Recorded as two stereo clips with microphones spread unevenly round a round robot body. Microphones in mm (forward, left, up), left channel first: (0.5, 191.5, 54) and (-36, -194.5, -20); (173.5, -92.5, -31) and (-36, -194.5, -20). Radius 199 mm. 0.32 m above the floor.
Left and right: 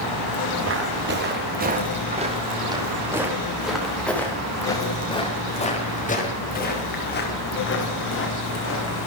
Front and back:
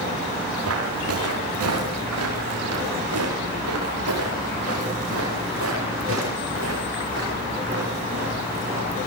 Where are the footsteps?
155° right, 6.5 m; by 9.0 s 140° left, 9.5 m.